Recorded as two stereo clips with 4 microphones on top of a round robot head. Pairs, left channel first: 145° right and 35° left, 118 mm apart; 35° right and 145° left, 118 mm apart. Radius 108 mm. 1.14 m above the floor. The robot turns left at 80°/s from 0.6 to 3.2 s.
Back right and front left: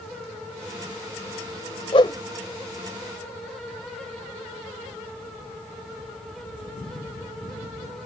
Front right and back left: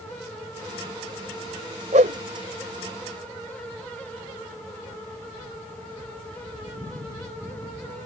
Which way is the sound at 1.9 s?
175° left.